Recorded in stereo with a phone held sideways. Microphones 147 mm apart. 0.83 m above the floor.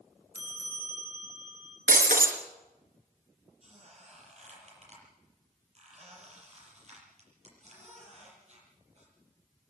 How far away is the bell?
About 6.5 m.